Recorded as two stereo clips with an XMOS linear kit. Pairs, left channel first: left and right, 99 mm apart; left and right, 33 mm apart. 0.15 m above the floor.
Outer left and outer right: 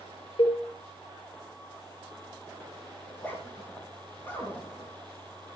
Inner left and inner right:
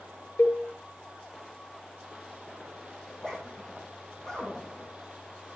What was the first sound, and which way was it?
A cowbell, 65° left (ahead or behind).